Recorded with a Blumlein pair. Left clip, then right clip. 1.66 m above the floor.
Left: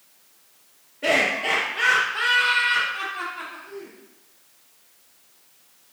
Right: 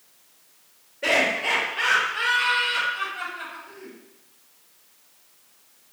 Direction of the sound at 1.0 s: 5° left.